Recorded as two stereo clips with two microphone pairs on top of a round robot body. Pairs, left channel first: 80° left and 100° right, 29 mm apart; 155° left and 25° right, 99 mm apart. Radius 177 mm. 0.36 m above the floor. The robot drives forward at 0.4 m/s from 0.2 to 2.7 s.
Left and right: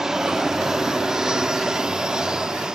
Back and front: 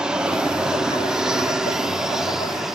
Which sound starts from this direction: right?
An aircraft, at 0.0 s.